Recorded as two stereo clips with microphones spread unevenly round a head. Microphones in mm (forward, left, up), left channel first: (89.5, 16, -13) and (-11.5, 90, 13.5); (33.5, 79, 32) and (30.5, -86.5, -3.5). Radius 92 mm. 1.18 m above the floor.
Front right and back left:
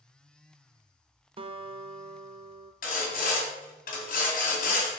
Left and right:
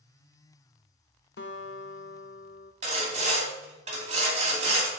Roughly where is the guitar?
Left.